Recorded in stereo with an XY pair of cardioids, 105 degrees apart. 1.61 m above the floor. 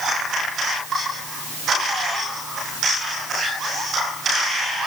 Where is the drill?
I don't hear a drill.